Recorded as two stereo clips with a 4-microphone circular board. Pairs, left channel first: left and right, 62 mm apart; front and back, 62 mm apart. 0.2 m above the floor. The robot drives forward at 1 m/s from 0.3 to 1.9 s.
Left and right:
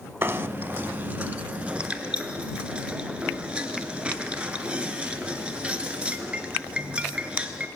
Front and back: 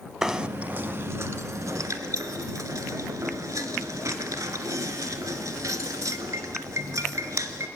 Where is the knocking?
105° right, 1.0 m; by 7.7 s 160° right, 2 m.